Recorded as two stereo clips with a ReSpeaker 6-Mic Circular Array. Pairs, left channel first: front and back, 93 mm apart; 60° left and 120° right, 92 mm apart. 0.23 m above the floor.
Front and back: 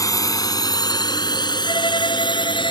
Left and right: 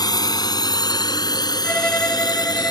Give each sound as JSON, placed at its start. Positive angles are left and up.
{"t": 0.0, "sound": "a drone", "azimuth_deg": 40}
{"t": 1.6, "sound": "a violin", "azimuth_deg": -15}